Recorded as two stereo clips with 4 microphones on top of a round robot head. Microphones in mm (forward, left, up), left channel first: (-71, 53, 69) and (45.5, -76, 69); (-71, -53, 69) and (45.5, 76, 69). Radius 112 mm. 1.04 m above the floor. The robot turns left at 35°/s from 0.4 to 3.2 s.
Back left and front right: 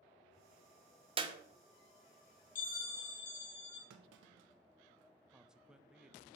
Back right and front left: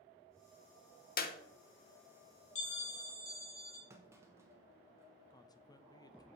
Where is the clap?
105° right, 0.8 m; by 1.4 s 110° right, 0.8 m.